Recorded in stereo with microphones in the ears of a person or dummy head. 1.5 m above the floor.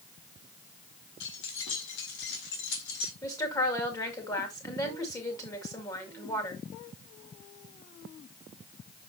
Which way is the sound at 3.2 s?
20° left (ahead or behind).